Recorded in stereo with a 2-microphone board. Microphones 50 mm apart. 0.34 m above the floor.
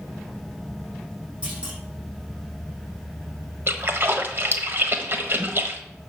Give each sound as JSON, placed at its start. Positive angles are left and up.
{"t": 1.4, "sound": "a clunk", "side_deg": -25, "distance_m": 6.0}
{"t": 3.7, "sound": "a splash", "side_deg": -50, "distance_m": 1.2}